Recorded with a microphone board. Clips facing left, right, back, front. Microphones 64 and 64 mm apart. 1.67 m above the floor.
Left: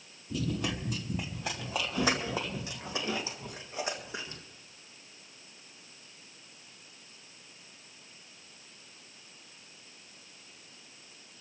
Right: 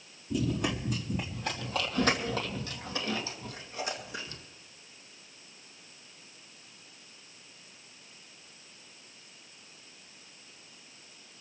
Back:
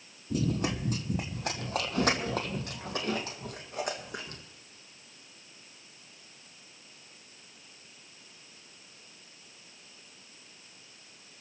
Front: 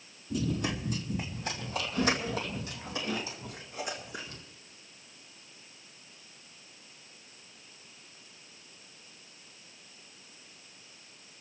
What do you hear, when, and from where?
0.3 s running footsteps: 165° right, 2 m; by 4.4 s 150° left, 3.5 m